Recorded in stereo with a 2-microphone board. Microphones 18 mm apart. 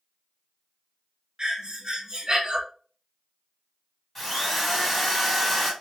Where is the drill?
10° left (ahead or behind), 1.2 m.